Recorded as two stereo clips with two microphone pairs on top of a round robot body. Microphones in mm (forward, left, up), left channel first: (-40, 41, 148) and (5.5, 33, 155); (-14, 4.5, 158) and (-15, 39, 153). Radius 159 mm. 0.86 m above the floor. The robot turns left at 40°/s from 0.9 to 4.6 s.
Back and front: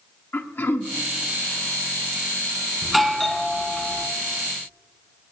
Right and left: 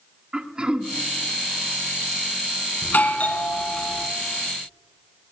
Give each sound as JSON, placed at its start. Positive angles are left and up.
{"t": 0.3, "sound": "throat clearing", "azimuth_deg": 145, "distance_m": 1.4}
{"t": 2.8, "sound": "a doorbell", "azimuth_deg": -100, "distance_m": 1.7}